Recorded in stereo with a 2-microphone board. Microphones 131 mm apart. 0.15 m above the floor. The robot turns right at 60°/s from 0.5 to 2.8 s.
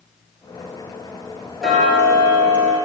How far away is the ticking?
About 1.7 m.